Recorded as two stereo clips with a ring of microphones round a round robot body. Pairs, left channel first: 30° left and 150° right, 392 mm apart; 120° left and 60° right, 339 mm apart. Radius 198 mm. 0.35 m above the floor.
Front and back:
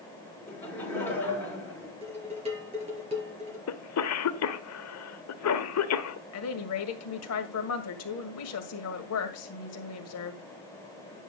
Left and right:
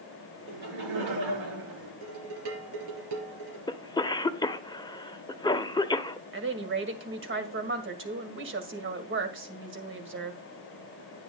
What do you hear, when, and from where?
0.5 s laughter: 55° right, 6 m
2.0 s dishes clattering: 75° right, 4 m
3.7 s a cough: 50° left, 1.1 m
6.3 s a woman speaking: 15° right, 2 m